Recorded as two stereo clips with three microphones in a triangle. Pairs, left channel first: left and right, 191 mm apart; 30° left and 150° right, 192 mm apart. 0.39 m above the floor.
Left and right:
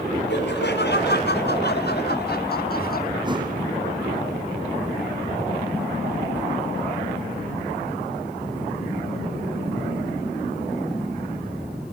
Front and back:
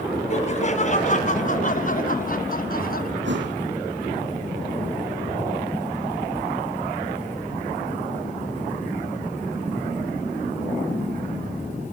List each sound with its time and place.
0.3 s laughter: 80° left, 4 m; by 3.1 s 60° left, 3 m
3.2 s a thud: 155° right, 4.5 m